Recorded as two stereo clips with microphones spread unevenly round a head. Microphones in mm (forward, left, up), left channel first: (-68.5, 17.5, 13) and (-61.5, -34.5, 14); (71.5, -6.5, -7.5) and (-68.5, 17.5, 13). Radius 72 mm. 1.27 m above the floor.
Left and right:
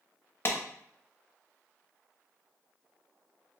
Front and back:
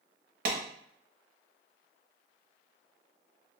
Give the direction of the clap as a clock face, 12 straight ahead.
7 o'clock.